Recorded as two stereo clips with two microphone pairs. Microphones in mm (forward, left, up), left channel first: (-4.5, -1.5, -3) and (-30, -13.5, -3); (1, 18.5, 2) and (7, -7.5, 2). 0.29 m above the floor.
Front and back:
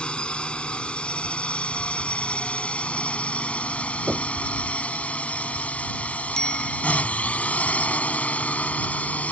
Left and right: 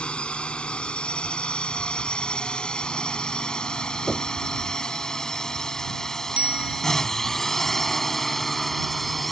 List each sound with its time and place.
0.0 s a drone: 70° left; by 9.3 s 20° left
4.1 s knocking: 175° left
6.4 s a bicycle bell: 40° right